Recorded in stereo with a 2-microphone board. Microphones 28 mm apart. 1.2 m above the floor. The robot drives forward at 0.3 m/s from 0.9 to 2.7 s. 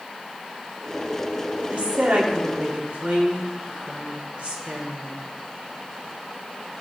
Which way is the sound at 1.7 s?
65° right (ahead or behind).